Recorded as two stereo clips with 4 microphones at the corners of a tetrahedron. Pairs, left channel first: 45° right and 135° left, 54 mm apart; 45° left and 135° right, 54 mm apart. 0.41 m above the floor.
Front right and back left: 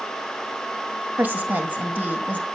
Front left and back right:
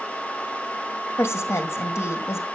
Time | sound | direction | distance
1.2 | a woman speaking | 80° left | 2 m